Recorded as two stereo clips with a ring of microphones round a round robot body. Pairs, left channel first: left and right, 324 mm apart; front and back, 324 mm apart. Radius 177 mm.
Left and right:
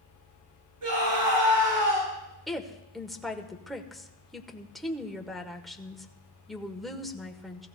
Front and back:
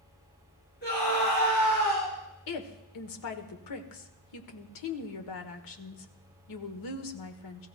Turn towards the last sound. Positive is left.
turn(degrees=0)